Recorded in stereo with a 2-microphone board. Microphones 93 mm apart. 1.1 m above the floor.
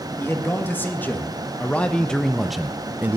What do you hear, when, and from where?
0.2 s a man speaking: 25° left (ahead or behind), 2 m; by 3.2 s 20° right (ahead or behind), 0.6 m